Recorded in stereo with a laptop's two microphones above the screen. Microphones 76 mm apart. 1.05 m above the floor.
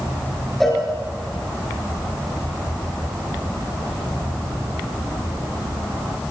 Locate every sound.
0.6 s a cowbell: 5° left (ahead or behind), 4.5 m